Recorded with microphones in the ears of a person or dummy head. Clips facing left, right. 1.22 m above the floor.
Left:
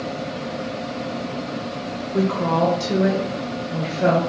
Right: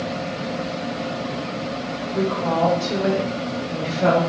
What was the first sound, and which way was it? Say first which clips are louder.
A woman speaking: left 1 dB; 60° left (ahead or behind).